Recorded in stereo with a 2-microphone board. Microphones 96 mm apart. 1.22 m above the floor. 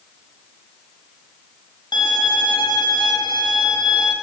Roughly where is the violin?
Left.